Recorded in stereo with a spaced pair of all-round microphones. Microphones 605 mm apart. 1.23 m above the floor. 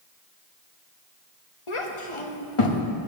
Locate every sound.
1.7 s a child speaking: 55° left (ahead or behind), 1.2 m